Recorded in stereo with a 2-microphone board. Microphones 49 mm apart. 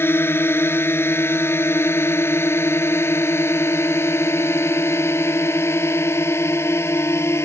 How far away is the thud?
No thud in this recording.